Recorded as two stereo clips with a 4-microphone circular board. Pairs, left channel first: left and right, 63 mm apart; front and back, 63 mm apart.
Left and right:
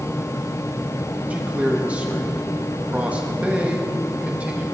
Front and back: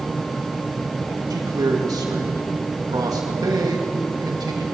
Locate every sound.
1.3 s a man speaking: 160° right, 1.8 m